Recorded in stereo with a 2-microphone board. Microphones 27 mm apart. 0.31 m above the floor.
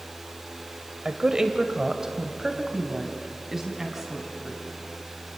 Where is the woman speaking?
30° right (ahead or behind), 1.5 m; by 4.6 s 10° right (ahead or behind), 3.5 m.